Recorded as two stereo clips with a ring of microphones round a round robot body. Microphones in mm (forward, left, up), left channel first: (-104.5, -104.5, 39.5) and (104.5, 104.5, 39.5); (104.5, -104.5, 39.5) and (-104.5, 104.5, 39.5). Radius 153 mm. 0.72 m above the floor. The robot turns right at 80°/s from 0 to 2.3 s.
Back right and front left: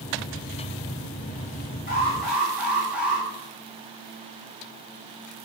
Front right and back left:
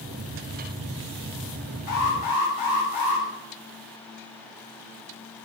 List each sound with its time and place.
1.9 s an alarm: 75° right, 7.5 m; by 3.3 s 40° right, 7.5 m